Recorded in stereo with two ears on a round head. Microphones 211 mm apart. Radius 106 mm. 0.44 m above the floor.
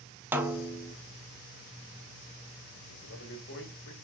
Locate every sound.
0.3 s a snare drum: 10° right (ahead or behind), 0.9 m
2.9 s a man speaking: 50° left (ahead or behind), 2 m